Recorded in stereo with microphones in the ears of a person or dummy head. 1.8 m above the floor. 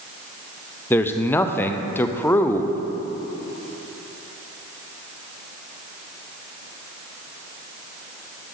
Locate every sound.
0.9 s a man speaking: 10° left (ahead or behind), 0.6 m